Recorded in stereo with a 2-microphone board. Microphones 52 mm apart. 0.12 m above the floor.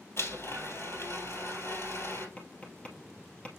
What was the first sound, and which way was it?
A blender, 55° left (ahead or behind).